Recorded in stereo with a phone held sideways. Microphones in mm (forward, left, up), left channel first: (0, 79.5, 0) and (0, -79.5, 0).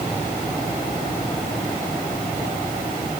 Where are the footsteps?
No footsteps in this recording.